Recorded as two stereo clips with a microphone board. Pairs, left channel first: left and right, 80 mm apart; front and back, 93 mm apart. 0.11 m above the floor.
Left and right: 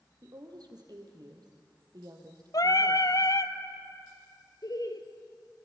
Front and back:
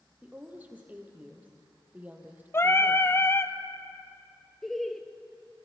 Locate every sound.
0.2 s a woman speaking: 110° right, 3 m
2.5 s singing: 60° left, 0.8 m
4.6 s laughter: 85° left, 1.9 m